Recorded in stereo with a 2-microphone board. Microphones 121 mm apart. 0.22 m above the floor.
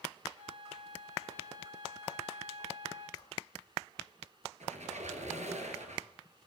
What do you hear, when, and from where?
0.3 s a flute: 70° right (ahead or behind), 7.5 m
3.2 s a whoosh: 35° left (ahead or behind), 2.5 m
4.6 s a squeak: 75° right (ahead or behind), 2.5 m